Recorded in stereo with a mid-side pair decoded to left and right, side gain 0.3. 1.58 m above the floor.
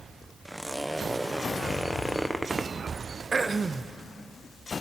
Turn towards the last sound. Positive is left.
turn(degrees=-45)